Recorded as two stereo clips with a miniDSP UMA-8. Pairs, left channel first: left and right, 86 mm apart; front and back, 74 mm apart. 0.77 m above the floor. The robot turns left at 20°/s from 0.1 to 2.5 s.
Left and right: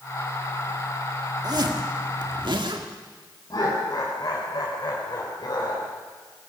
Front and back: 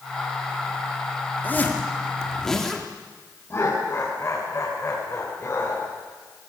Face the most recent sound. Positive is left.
turn(degrees=55)